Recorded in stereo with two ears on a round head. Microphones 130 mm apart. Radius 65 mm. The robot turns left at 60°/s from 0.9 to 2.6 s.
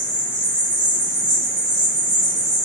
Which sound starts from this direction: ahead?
An insect, at 0.0 s.